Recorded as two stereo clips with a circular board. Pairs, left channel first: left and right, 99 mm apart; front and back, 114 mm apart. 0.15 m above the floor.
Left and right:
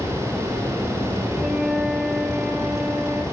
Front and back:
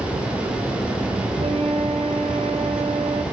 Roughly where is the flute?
Behind.